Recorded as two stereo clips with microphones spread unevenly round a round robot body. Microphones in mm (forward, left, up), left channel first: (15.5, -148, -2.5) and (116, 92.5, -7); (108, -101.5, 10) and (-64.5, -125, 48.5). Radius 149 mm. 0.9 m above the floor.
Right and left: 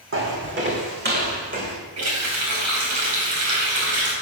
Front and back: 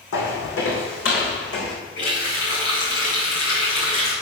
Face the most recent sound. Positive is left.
turn(degrees=50)